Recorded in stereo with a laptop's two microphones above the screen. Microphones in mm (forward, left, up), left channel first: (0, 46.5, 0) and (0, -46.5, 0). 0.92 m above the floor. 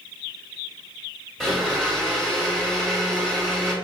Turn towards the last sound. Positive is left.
turn(degrees=5)  # may be behind; listen again after turning